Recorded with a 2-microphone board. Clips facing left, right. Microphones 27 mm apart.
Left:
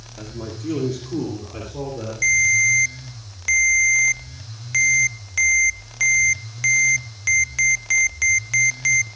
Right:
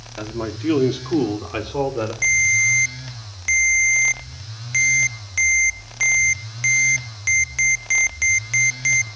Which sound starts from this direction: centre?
A ringtone, at 2.2 s.